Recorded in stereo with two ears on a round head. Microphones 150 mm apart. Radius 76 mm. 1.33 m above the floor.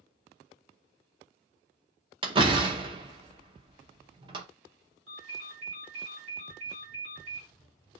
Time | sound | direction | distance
2.2 | a door slam | 30° right (ahead or behind) | 0.7 m
5.1 | a ringtone | 65° right (ahead or behind) | 2 m